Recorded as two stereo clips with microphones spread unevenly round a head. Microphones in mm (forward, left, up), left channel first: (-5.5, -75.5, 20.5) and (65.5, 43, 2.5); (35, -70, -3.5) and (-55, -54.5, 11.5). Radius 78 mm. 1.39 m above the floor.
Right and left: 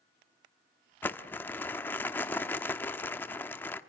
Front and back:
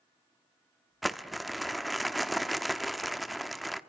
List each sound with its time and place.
1.0 s crumpling: 125° right, 0.9 m